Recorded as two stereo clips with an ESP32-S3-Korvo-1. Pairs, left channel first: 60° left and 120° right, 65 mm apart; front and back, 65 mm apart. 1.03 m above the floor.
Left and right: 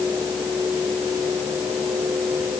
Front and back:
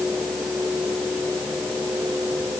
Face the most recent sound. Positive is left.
No sound to turn to.